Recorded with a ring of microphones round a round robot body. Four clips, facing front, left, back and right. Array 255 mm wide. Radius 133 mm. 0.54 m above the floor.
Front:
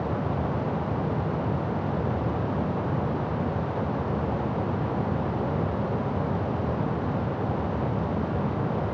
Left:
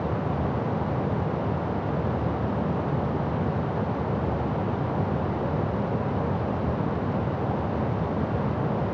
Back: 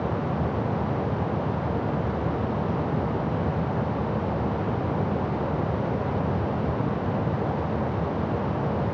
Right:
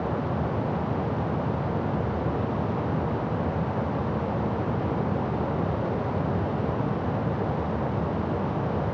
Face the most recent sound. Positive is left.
No sound to turn to.